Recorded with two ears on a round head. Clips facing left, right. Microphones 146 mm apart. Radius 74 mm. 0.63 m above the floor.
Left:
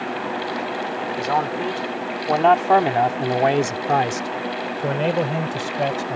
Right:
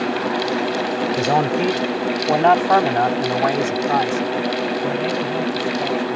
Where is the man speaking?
35° right (ahead or behind); by 6.2 s 70° left (ahead or behind).